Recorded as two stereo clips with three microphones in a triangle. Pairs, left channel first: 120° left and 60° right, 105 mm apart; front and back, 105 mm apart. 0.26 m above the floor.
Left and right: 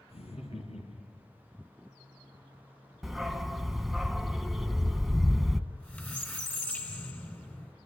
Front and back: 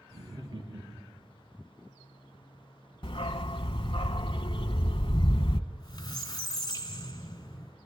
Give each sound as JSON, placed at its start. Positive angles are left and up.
{"t": 0.1, "sound": "laughter", "azimuth_deg": 140, "distance_m": 6.0}
{"t": 3.0, "sound": "a dog barking", "azimuth_deg": 30, "distance_m": 0.8}
{"t": 5.7, "sound": "a squeak", "azimuth_deg": 50, "distance_m": 2.0}